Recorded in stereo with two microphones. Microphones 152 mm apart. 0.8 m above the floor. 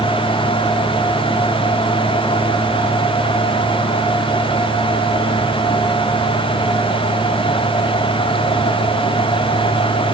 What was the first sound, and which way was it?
Only background noise.